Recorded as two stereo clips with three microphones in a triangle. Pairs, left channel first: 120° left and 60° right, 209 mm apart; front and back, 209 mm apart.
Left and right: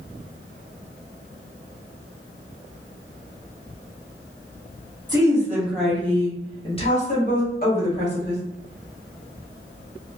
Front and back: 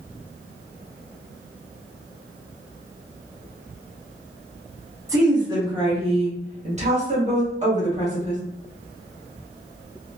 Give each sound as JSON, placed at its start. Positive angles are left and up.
{"t": 5.1, "sound": "a woman speaking", "azimuth_deg": -115, "distance_m": 1.1}